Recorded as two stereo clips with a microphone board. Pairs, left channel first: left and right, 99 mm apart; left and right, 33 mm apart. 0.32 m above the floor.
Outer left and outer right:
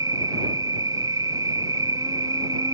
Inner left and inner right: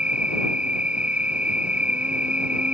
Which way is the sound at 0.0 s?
40° right (ahead or behind).